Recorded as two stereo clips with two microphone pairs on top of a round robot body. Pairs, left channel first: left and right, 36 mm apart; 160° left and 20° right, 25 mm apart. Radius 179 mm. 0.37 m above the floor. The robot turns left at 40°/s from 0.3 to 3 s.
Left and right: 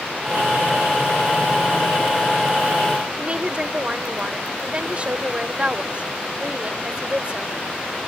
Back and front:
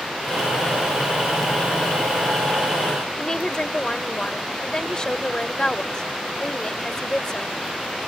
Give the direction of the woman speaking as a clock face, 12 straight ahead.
5 o'clock.